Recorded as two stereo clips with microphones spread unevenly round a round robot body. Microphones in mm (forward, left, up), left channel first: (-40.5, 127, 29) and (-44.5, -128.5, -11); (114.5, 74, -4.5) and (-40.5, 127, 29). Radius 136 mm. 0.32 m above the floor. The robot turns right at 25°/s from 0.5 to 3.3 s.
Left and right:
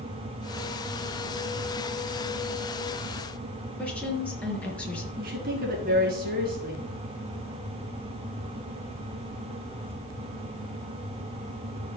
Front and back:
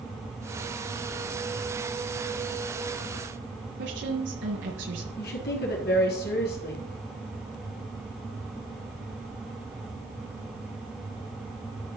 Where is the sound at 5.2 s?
35° right, 3.5 m.